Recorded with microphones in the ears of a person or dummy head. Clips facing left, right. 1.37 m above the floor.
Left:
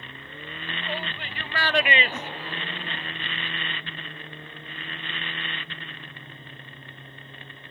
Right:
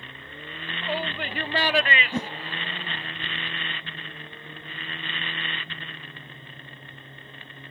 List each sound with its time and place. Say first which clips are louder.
0.8 s a shout: right 6 dB; 65° right (ahead or behind); by 3.1 s 75° left (ahead or behind)
2.1 s a whoosh: right 6 dB; 25° right (ahead or behind)